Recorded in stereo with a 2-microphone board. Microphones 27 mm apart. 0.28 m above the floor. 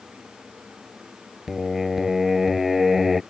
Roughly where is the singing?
Centre.